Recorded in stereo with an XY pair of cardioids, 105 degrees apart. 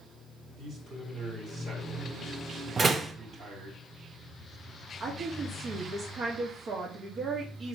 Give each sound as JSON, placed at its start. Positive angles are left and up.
{"t": 0.6, "sound": "a man speaking", "azimuth_deg": -65, "distance_m": 5.5}
{"t": 2.8, "sound": "a door slam", "azimuth_deg": -35, "distance_m": 1.2}
{"t": 5.0, "sound": "a woman speaking", "azimuth_deg": -55, "distance_m": 2.5}